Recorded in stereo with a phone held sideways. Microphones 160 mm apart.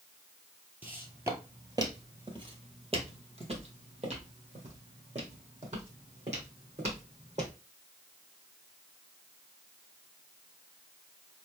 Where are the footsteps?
10° right (ahead or behind), 1.5 m; by 7.5 s 45° right (ahead or behind), 3.5 m.